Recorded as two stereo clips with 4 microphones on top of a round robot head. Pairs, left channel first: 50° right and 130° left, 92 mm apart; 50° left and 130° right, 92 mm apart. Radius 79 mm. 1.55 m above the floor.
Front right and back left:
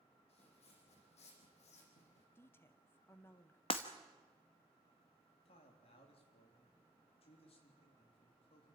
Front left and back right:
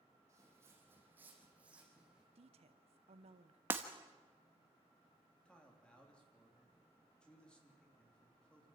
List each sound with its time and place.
0.3 s footsteps: 70° right, 4 m; by 2.2 s 50° right, 4.5 m
2.4 s a woman speaking: 115° right, 1.1 m
3.7 s breaking glass: 70° right, 1.0 m
5.5 s a man speaking: 30° right, 3.5 m